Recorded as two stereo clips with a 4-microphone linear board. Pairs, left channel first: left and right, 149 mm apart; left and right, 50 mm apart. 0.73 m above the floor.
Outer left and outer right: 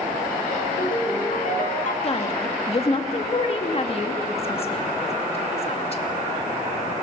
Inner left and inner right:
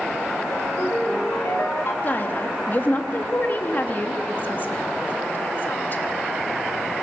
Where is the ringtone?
60° left (ahead or behind), 1.6 m.